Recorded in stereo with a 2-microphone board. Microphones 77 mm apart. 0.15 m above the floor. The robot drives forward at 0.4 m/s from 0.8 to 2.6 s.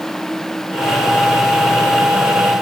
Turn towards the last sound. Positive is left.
No sound to turn to.